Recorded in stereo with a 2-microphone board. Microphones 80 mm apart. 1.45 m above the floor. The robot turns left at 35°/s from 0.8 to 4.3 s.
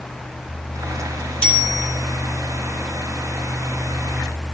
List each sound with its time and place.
1.4 s a bicycle bell: 15° left (ahead or behind), 5 m; by 1.9 s 5° right (ahead or behind), 5 m